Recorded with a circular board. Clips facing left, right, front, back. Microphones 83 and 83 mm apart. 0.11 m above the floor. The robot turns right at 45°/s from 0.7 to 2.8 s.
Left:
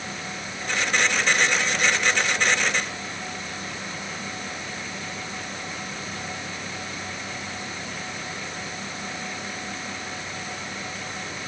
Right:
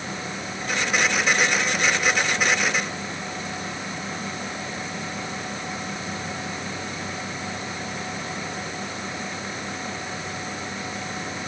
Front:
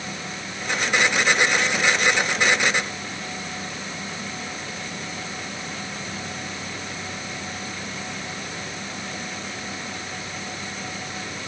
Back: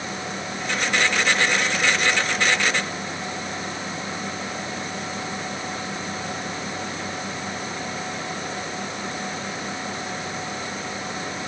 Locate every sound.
Only background noise.